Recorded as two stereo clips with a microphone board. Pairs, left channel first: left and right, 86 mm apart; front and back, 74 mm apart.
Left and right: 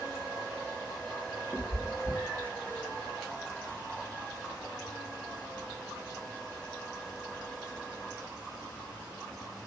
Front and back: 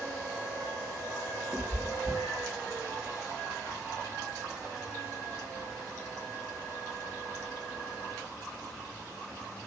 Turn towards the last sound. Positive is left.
turn(degrees=160)